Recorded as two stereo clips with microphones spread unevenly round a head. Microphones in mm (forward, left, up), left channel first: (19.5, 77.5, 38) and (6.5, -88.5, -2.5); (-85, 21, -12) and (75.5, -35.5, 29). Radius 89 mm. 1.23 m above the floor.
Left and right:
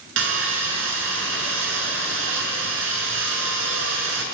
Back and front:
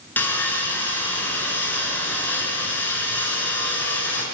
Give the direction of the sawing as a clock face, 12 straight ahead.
4 o'clock.